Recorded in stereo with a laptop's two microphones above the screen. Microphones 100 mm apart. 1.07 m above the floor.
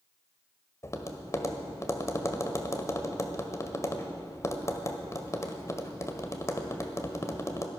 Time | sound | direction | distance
0.8 | tapping | 35° left (ahead or behind) | 1.5 m